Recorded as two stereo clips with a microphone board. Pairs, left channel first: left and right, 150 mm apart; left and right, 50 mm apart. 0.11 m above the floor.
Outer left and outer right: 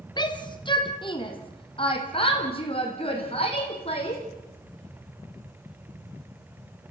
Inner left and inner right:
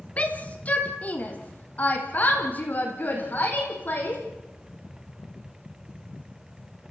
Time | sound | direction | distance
0.2 | a shout | 30° left (ahead or behind) | 2.5 m